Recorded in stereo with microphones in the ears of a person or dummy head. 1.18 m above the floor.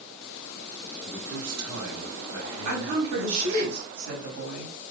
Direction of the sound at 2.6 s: 80° right.